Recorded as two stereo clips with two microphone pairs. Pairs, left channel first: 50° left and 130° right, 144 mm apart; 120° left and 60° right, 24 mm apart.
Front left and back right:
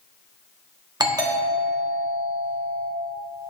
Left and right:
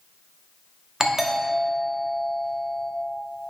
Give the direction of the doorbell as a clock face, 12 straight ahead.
3 o'clock.